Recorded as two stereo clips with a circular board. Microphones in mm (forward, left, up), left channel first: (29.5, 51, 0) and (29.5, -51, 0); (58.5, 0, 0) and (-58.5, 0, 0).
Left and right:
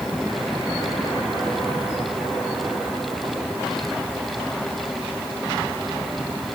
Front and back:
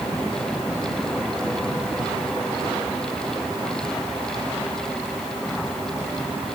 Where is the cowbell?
No cowbell in this recording.